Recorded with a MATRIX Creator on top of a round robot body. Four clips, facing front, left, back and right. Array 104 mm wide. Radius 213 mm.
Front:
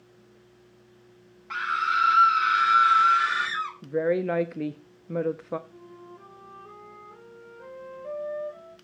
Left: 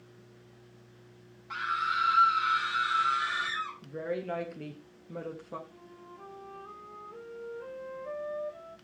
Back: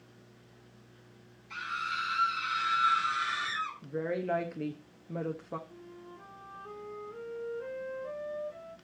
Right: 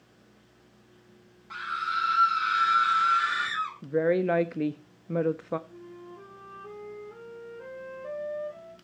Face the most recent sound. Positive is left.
turn(degrees=-80)